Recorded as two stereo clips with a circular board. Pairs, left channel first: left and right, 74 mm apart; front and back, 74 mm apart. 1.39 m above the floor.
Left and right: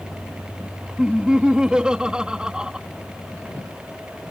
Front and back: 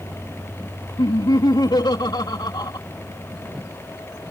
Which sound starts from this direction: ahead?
Laughter, at 1.0 s.